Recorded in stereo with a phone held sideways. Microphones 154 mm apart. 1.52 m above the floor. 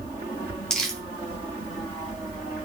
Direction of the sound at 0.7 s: 5° left (ahead or behind).